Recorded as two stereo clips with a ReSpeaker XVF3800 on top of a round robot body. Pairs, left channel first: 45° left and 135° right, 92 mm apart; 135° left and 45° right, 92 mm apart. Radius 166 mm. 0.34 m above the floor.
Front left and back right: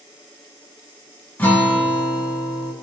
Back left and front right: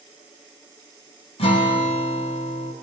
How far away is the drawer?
No drawer in this recording.